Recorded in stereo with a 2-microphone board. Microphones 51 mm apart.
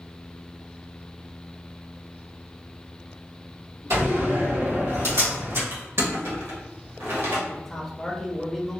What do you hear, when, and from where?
3.9 s a door slam: 70° right (ahead or behind), 1.7 m
5.7 s crushing: 60° right (ahead or behind), 1.1 m
7.5 s a man speaking: 5° left (ahead or behind), 0.6 m